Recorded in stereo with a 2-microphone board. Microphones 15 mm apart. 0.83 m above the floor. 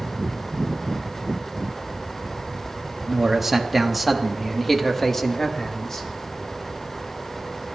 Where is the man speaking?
25° right (ahead or behind), 1.3 m; by 6.1 s 40° left (ahead or behind), 1.7 m.